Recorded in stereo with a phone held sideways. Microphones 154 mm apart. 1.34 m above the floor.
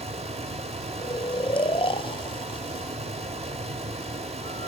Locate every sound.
0.0 s a fan: 45° right (ahead or behind), 1.4 m
1.0 s snoring: 40° left (ahead or behind), 0.5 m